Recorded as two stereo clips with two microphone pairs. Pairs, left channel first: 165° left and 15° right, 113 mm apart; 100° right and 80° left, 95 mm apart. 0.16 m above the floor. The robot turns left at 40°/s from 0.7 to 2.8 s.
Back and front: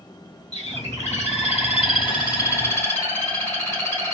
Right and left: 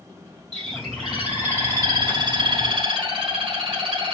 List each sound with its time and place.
0.5 s a bird: 175° left, 3.5 m; by 4.2 s 90° left, 3.5 m